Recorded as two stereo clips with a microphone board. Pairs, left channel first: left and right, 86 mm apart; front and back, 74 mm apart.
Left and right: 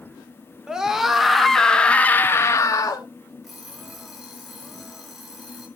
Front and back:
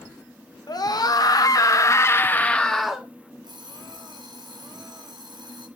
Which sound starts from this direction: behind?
An alarm clock, at 3.4 s.